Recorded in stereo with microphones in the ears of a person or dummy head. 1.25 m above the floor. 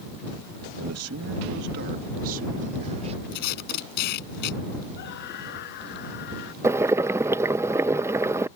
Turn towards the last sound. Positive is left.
turn(degrees=-10)  # may be behind; listen again after turning